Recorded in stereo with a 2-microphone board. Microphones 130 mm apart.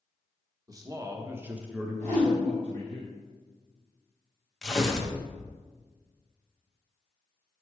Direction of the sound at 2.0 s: 55° right (ahead or behind).